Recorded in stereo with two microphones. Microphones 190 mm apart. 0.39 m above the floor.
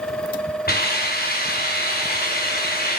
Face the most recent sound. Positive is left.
turn(degrees=55)  # may be behind; listen again after turning